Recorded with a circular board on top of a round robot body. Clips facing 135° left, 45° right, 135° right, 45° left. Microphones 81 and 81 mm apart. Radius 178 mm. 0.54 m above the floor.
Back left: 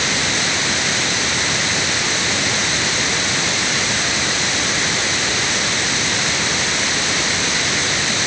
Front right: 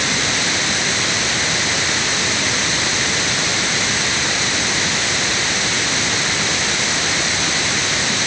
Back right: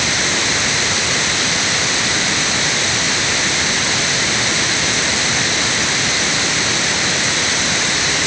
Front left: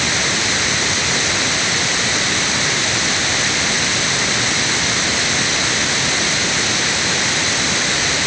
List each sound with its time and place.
Only background noise.